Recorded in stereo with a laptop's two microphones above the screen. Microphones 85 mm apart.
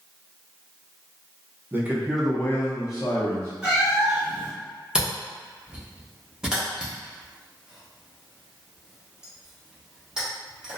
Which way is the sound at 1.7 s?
25° right (ahead or behind).